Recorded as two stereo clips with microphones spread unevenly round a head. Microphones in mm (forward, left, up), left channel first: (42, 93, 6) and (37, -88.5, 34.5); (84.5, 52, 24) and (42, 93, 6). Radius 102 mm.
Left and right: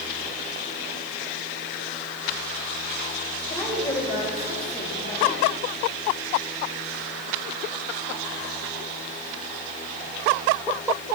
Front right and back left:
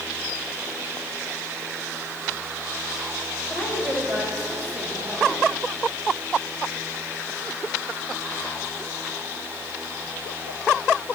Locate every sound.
3.5 s a woman speaking: 175° left, 4.5 m; by 5.4 s 155° left, 6 m